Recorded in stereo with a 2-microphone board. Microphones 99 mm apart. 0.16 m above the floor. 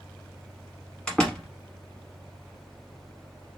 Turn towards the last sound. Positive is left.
turn(degrees=10)  # may be behind; listen again after turning